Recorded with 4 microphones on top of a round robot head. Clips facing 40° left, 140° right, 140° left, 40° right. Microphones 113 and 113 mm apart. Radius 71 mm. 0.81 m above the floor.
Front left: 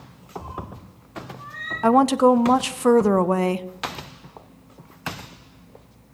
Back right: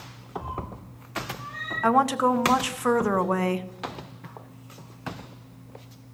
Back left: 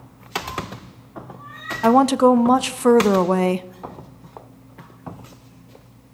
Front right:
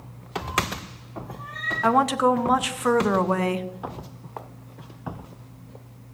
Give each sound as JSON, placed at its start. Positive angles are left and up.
{"t": 0.4, "sound": "a cat meowing", "azimuth_deg": -70, "distance_m": 7.0}
{"t": 1.8, "sound": "a woman speaking", "azimuth_deg": 95, "distance_m": 0.6}